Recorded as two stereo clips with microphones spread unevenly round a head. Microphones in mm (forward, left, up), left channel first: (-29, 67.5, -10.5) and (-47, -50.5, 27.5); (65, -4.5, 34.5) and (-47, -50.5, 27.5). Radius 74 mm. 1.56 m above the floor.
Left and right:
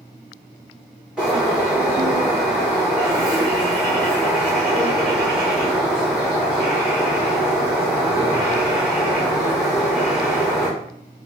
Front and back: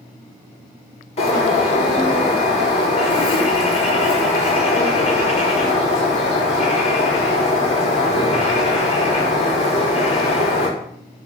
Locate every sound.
1.2 s a bird: 15° right, 5 m